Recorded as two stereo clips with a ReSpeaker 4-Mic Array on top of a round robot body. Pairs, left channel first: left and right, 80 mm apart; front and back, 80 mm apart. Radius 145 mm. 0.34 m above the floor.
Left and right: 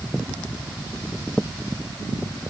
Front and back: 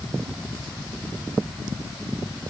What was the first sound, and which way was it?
Only background noise.